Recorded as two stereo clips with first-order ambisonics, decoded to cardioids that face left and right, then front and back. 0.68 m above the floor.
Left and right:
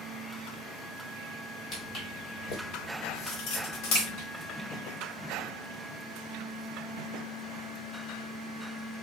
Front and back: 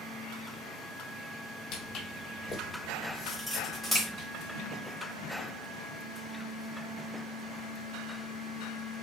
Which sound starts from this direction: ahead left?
Footsteps, at 1.7 s.